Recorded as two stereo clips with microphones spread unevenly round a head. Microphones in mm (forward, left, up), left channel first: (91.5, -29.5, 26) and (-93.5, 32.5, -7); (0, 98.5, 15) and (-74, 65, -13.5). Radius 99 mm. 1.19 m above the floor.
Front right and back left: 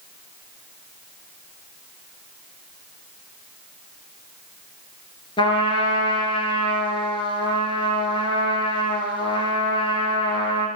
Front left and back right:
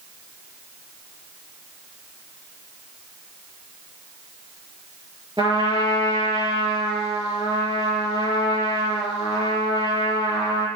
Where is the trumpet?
80° right, 3.5 m.